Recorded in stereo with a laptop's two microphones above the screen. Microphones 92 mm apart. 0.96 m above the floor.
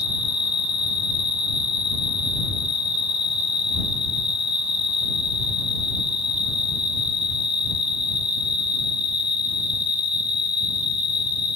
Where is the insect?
65° left (ahead or behind).